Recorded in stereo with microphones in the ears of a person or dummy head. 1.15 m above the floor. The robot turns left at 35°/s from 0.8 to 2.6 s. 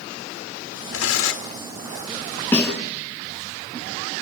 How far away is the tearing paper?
About 1.9 m.